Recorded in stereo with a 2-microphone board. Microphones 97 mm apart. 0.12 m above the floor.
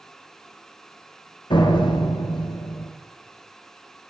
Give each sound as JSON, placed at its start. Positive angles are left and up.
{"t": 1.5, "sound": "a door slam", "side_deg": 55, "distance_m": 1.9}